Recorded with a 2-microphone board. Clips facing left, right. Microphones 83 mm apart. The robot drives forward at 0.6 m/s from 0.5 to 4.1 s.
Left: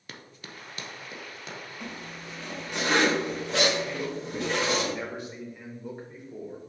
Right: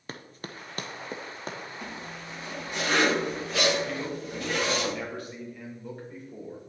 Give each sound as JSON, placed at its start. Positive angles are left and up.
{"t": 0.1, "sound": "running footsteps", "side_deg": -35, "distance_m": 0.8}
{"t": 1.8, "sound": "a zipper", "side_deg": 60, "distance_m": 3.5}
{"t": 3.9, "sound": "a man speaking", "side_deg": 20, "distance_m": 2.5}